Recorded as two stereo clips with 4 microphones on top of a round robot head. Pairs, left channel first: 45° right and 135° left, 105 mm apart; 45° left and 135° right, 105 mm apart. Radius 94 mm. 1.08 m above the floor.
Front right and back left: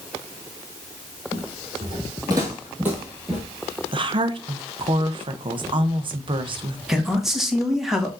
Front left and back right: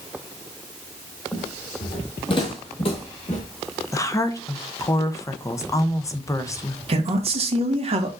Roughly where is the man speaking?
Behind right.